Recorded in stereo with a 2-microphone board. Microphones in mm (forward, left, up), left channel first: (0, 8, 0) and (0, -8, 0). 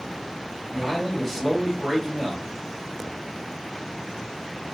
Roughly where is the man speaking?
Centre.